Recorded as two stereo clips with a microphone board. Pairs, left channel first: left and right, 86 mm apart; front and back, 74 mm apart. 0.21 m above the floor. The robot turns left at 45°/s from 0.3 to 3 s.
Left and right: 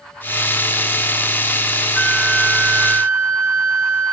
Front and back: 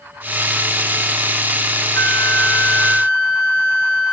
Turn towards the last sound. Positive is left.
turn(degrees=-70)